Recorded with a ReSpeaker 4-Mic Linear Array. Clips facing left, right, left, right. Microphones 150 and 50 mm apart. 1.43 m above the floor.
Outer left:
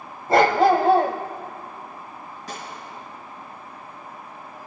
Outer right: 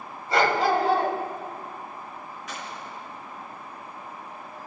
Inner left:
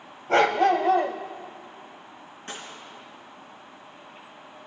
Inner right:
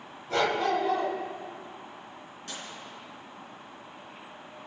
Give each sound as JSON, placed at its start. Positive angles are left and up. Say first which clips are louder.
{"t": 0.3, "sound": "a dog barking", "louder": "outer left 6 dB, inner left 6 dB", "side_deg": 45, "distance_m": 1.7}
{"t": 2.5, "sound": "a gunshot", "louder": "outer left 2 dB, inner left 3 dB", "side_deg": 35, "distance_m": 3.5}